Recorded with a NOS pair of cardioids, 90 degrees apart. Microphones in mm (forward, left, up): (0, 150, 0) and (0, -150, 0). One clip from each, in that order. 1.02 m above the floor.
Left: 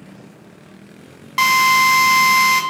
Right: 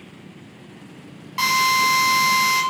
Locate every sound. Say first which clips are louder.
1.4 s a drill: left 5 dB; 35° left, 0.7 m